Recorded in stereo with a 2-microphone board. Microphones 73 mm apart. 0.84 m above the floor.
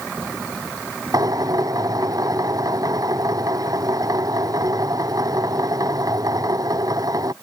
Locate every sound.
1.1 s a drill: 55° right (ahead or behind)